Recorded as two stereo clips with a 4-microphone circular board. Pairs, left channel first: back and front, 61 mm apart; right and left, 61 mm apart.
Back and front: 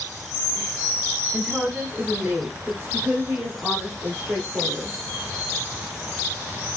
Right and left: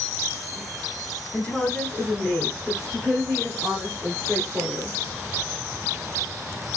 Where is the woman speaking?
50° right, 1.5 m; by 5.0 s 25° left, 2.5 m.